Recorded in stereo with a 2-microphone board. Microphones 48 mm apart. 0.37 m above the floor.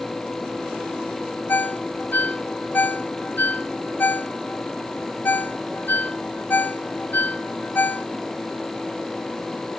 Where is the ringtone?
40° left (ahead or behind), 0.8 m.